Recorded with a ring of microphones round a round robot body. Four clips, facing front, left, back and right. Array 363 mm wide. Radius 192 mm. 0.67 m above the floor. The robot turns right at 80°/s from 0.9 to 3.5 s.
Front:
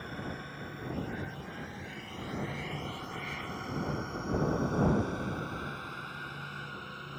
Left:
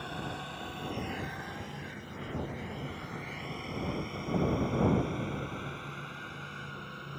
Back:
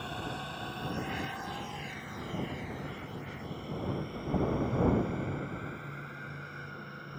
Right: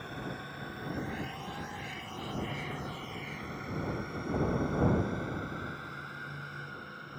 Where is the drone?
150° left; by 7.2 s 30° left.